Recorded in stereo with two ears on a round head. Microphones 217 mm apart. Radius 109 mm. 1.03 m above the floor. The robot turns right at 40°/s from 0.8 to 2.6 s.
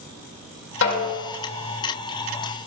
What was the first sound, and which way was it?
A snare drum, 55° left (ahead or behind).